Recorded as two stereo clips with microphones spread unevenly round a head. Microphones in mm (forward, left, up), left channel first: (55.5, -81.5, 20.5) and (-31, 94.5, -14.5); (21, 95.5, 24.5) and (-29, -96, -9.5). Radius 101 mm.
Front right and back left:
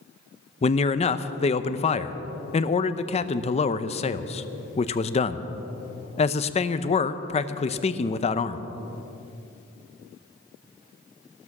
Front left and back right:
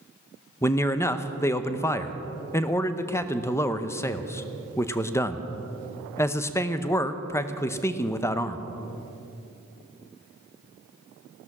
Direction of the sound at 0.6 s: 5° right.